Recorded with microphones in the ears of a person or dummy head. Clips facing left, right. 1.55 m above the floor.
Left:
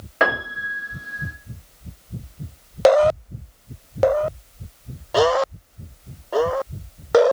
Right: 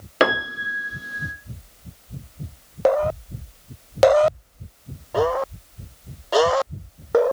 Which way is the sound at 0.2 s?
45° right (ahead or behind).